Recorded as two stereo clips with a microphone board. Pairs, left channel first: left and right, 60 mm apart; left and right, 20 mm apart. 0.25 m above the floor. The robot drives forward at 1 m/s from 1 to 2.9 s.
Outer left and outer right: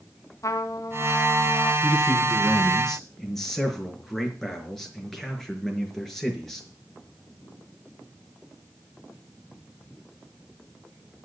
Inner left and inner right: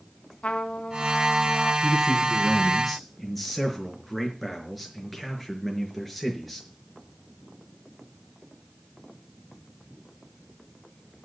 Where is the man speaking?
5° left (ahead or behind), 3.5 m.